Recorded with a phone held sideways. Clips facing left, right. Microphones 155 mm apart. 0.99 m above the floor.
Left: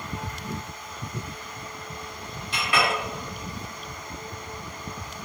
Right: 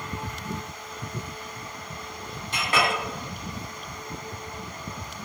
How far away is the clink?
About 1.2 m.